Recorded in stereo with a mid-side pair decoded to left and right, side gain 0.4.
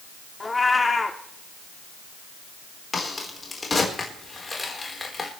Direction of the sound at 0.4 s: 25° left.